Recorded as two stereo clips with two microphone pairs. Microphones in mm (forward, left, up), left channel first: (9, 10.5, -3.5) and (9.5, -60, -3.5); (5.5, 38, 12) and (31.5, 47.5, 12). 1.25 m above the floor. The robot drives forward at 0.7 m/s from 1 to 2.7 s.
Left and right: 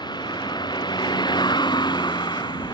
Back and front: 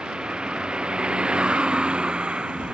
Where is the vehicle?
75° left.